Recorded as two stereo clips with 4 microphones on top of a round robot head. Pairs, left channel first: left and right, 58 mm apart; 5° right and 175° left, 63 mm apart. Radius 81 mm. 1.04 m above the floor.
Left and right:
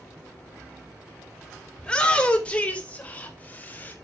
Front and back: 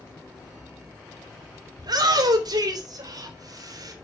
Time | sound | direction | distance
1.8 | a shout | 165° left | 4.5 m